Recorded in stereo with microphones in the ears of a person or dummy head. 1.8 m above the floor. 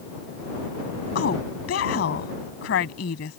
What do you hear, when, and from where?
1.1 s a woman speaking: 75° left (ahead or behind)